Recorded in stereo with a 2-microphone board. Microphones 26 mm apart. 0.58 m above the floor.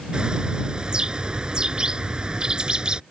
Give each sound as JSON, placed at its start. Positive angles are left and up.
{"t": 0.1, "sound": "a bird", "side_deg": -35}